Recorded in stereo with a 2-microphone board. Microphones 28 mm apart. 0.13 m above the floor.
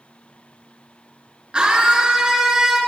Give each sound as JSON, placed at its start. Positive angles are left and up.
{"t": 1.5, "sound": "a scream", "side_deg": -35, "distance_m": 1.8}